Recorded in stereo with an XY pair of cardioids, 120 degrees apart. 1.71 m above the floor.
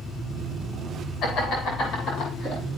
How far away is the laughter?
About 2.5 m.